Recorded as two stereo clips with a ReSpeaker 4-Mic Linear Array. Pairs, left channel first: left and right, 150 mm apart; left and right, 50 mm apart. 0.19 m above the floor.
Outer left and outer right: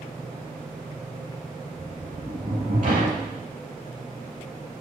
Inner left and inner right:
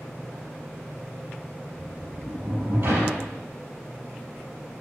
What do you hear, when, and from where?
1.8 s a sliding door: 60° right (ahead or behind), 5.5 m